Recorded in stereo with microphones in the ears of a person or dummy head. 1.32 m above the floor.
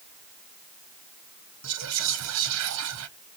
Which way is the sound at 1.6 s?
70° right (ahead or behind).